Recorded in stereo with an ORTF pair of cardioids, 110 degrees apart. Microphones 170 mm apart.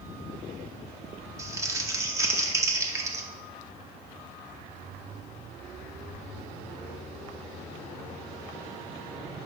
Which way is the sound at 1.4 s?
15° right.